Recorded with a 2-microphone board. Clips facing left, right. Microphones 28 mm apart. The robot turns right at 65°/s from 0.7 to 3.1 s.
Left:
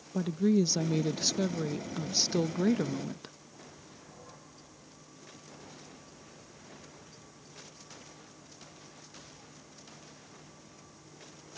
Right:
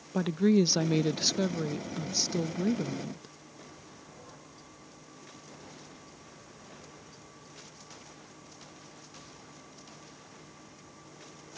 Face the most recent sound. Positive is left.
turn(degrees=90)